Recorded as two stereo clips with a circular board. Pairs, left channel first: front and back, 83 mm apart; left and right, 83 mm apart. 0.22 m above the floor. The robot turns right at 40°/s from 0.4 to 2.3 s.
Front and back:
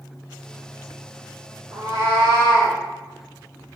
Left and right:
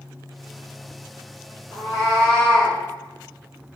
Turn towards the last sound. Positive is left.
turn(degrees=165)